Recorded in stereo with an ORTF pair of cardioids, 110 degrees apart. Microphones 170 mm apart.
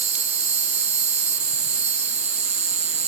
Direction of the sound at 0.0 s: 40° right.